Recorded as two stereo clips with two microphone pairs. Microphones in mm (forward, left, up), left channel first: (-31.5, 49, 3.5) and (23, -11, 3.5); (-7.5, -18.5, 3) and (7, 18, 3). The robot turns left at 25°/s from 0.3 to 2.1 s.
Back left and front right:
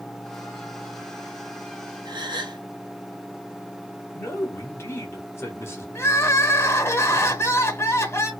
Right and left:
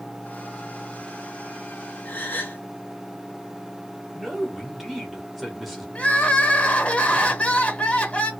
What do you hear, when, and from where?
2.0 s a gasp: 65° right, 1.0 m
4.2 s a man speaking: 150° left, 1.4 m
6.0 s crying: 175° right, 0.9 m